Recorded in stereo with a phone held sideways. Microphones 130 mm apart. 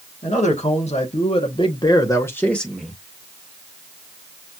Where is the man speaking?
65° left (ahead or behind), 1.5 m; by 3.0 s 10° right (ahead or behind), 0.8 m.